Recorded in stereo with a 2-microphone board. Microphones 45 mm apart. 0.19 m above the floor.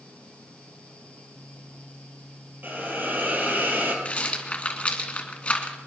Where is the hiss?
45° right (ahead or behind), 3 m.